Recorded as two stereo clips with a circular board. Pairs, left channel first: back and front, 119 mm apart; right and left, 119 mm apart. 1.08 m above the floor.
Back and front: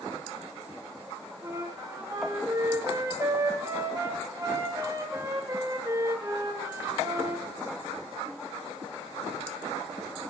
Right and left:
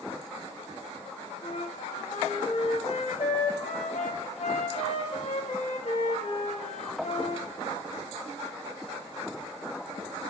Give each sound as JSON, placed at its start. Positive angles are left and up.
{"t": 1.4, "sound": "a flute", "azimuth_deg": -65, "distance_m": 1.4}